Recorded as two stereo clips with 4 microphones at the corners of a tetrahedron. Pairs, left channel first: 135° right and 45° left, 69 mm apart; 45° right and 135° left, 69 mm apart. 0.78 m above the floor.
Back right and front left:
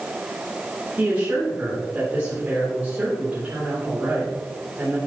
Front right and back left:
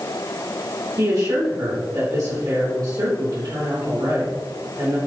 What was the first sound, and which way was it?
A woman speaking, 110° left.